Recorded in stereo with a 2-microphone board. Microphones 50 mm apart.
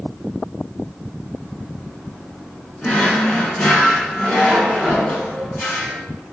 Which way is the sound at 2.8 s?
35° left (ahead or behind).